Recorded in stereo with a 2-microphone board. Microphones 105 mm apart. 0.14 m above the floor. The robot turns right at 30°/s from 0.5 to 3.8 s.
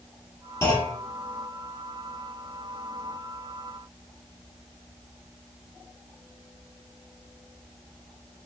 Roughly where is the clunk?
Left.